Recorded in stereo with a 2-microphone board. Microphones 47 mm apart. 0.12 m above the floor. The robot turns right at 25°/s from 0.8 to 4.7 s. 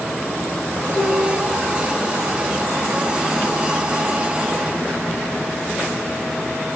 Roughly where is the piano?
Left.